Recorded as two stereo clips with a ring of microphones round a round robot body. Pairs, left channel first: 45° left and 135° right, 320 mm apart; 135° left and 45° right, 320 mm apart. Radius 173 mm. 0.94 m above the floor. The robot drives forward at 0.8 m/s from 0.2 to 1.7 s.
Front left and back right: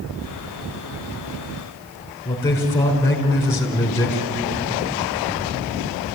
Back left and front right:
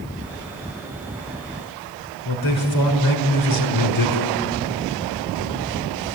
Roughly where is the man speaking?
Behind left.